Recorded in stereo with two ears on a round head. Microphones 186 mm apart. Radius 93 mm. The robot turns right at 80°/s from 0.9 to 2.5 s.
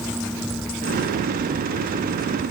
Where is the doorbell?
I don't hear a doorbell.